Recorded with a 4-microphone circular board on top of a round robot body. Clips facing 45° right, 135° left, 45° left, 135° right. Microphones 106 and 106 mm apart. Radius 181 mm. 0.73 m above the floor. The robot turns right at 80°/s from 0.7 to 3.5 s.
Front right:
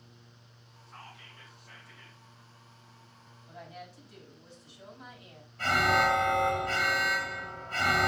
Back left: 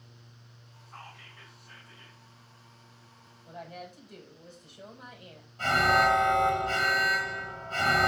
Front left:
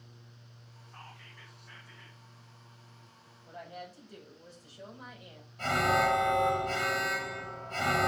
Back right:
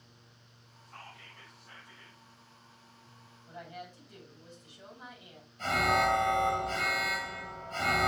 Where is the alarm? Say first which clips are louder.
Back left 2 dB, front left 1 dB; 70° left, 3.5 m.